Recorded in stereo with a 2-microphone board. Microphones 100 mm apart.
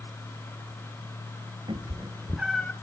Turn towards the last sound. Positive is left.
turn(degrees=25)  # may be behind; listen again after turning